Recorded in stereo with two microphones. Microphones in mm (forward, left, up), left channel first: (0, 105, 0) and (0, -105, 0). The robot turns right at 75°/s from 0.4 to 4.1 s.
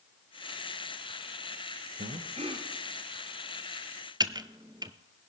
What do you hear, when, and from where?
2.0 s breathing: 70° right, 1.6 m; by 2.7 s 20° right, 1.6 m
4.2 s typing on a keyboard: 20° right (ahead or behind), 0.6 m